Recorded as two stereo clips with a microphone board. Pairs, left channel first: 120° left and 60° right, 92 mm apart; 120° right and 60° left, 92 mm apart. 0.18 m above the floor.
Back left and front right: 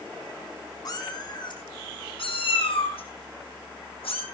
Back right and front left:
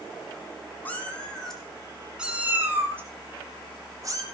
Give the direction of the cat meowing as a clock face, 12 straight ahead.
6 o'clock.